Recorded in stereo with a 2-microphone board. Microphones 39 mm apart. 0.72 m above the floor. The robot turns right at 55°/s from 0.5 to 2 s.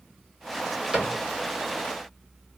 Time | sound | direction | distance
0.9 | a cupboard door | 15° right (ahead or behind) | 1.2 m